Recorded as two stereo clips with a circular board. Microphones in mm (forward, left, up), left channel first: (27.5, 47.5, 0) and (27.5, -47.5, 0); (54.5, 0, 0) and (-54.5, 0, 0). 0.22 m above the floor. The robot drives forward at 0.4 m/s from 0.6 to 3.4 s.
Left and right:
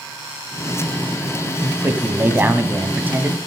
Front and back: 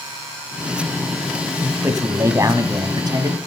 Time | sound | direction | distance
1.6 | a man speaking | 130° right | 1.6 m